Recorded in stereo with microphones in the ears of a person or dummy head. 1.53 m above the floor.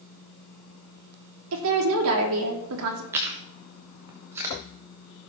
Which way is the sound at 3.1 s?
15° right (ahead or behind).